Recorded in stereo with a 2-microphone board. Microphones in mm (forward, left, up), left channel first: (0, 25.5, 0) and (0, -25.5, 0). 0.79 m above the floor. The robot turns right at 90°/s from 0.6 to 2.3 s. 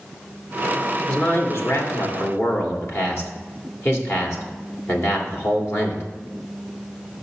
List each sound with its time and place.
1.1 s a man speaking: 15° left, 1.8 m; by 6.0 s 125° left, 1.8 m